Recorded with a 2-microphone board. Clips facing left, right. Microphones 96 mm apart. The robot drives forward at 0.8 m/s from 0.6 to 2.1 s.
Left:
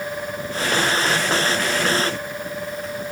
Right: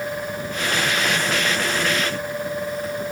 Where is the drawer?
I don't hear a drawer.